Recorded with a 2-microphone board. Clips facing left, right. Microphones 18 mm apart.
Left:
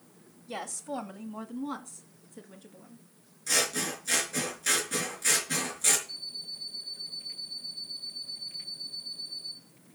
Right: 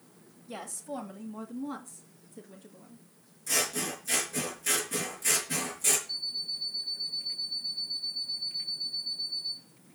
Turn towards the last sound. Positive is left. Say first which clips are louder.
# right 5 dB
turn(degrees=70)  # may be behind; listen again after turning